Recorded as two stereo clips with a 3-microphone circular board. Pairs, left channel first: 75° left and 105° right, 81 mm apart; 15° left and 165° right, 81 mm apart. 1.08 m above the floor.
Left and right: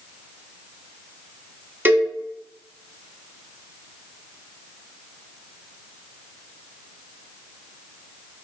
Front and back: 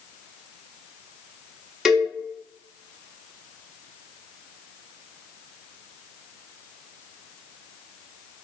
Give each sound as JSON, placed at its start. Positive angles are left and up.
{"t": 1.9, "sound": "a cowbell", "azimuth_deg": -90, "distance_m": 0.6}